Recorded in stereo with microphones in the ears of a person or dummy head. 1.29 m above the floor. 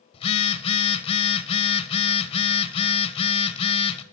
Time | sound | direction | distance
0.1 | a phone buzzing | 35° left (ahead or behind) | 0.6 m